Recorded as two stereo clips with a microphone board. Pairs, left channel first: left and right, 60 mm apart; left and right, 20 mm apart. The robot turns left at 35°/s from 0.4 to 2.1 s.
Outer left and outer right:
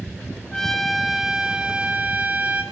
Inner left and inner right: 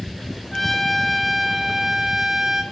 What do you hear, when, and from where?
0.5 s a trumpet: 15° left, 1.4 m; by 2.6 s 40° right, 1.4 m